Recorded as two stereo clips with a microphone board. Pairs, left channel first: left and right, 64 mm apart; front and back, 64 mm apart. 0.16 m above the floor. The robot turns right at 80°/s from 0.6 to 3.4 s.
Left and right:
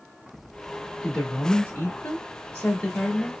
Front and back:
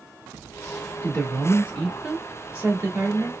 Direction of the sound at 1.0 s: 5° left.